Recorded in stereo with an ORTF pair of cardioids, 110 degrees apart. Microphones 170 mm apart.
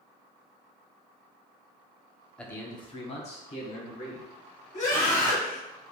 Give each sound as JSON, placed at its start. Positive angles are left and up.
{"t": 2.4, "sound": "a man speaking", "azimuth_deg": 5, "distance_m": 0.6}
{"t": 4.7, "sound": "a scream", "azimuth_deg": 40, "distance_m": 1.0}